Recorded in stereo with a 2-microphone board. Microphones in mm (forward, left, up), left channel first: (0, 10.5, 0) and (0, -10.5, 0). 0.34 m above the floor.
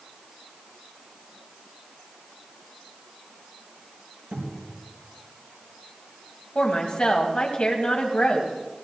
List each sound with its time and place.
4.3 s a cupboard door: 80° right, 5 m
6.5 s a woman speaking: 55° left (ahead or behind), 2.5 m